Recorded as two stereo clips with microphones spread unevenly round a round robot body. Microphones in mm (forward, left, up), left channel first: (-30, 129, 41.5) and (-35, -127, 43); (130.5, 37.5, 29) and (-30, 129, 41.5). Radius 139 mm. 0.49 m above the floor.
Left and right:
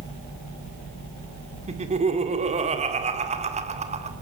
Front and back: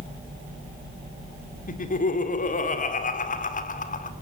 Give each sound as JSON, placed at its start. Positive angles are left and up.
{"t": 1.7, "sound": "laughter", "azimuth_deg": -35, "distance_m": 1.8}